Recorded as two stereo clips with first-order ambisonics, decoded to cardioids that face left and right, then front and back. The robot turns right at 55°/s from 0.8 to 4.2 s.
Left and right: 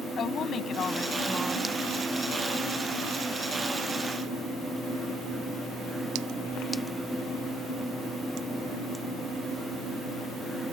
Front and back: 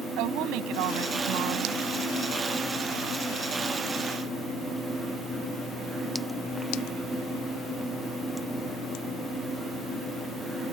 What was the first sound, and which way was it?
A woman speaking, 150° left.